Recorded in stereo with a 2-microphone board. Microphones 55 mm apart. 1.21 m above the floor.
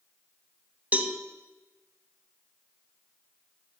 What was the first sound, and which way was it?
A cowbell, 30° right (ahead or behind).